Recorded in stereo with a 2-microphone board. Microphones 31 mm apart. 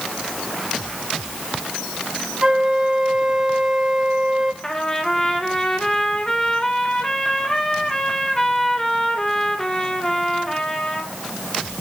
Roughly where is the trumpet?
Centre.